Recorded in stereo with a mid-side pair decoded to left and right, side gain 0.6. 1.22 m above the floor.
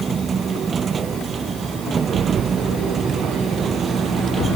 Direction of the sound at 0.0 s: 30° right.